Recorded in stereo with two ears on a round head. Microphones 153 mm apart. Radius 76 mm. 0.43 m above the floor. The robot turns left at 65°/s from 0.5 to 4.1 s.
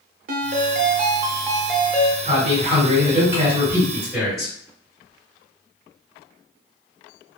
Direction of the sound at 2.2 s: 55° right.